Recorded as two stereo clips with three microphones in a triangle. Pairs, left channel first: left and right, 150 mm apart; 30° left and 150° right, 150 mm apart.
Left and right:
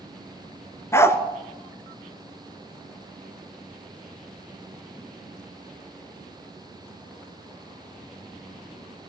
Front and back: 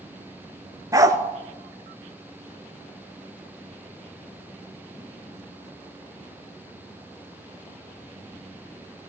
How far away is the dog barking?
About 0.7 m.